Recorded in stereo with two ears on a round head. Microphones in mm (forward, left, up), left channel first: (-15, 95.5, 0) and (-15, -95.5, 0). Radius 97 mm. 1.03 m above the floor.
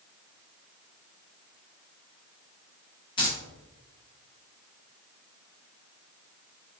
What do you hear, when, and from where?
3.2 s keys jangling: 25° left (ahead or behind), 1.7 m